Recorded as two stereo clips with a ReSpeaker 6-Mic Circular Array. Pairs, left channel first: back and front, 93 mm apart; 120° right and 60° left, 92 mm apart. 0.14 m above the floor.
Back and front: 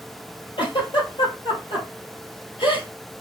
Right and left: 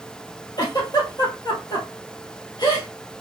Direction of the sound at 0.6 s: 160° right.